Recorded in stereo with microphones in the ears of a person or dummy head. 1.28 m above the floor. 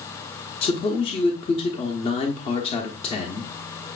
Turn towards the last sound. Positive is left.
turn(degrees=30)  # may be behind; listen again after turning